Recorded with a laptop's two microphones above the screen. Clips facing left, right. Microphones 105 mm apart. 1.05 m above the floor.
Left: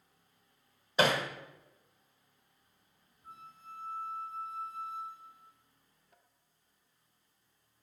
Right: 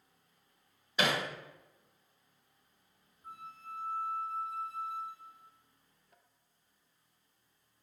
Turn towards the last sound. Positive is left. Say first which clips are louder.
# right 4 dB
turn(degrees=-75)  # may be behind; listen again after turning